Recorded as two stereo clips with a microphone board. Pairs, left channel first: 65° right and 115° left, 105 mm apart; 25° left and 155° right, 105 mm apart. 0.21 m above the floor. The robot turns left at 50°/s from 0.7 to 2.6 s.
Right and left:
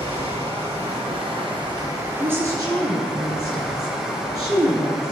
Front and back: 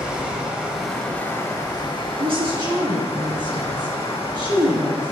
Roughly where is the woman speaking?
Behind.